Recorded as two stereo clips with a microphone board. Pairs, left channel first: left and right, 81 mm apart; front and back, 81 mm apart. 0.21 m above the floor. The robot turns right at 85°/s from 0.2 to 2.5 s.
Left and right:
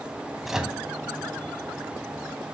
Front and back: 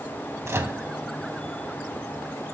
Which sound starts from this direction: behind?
A microwave, at 0.5 s.